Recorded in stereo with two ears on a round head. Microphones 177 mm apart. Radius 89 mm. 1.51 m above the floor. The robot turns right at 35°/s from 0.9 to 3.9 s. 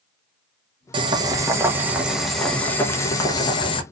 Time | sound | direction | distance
0.9 | boiling | 45° right | 0.7 m